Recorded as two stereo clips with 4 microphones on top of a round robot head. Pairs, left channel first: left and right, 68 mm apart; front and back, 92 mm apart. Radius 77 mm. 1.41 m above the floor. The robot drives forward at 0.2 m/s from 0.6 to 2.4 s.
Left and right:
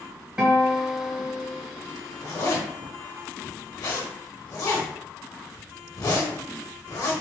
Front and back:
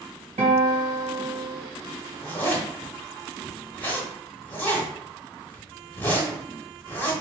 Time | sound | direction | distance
0.4 | a guitar | 165° right | 1.8 m
2.2 | a zipper | 60° left | 1.4 m